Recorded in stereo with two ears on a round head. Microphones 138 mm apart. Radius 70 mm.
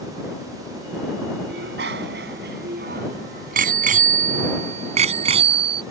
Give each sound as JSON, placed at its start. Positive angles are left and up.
{"t": 1.5, "sound": "a bicycle bell", "side_deg": -80}